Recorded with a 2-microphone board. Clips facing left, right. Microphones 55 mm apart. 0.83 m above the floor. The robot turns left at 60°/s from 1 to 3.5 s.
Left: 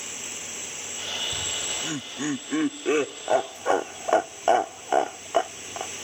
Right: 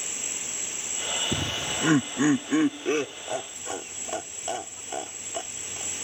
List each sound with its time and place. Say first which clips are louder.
0.0 s an insect: even; 160° right; by 6.0 s 50° left
1.3 s laughter: right 3 dB; 70° right (ahead or behind); by 5.9 s 45° left (ahead or behind)